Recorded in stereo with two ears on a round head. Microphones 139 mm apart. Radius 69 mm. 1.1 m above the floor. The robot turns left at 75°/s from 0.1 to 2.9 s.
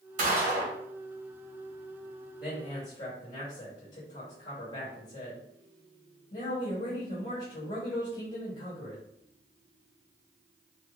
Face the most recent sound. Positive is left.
turn(degrees=130)